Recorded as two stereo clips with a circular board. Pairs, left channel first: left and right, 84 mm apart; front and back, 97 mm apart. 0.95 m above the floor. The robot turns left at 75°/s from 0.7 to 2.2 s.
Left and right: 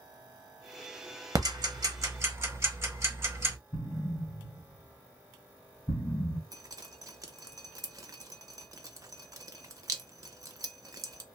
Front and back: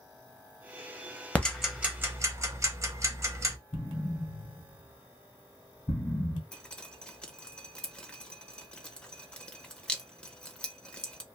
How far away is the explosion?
About 2 m.